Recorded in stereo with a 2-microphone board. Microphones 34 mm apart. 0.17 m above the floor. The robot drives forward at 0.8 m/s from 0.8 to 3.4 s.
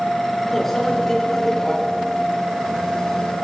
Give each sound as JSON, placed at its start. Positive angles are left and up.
{"t": 0.5, "sound": "a microwave", "side_deg": 10, "distance_m": 1.3}